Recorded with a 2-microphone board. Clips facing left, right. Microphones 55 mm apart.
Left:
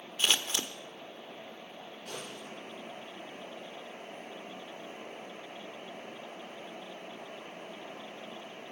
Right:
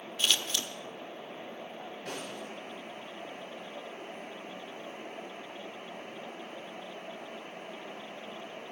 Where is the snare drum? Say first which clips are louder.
Right 3 dB; 85° right, 9.5 m.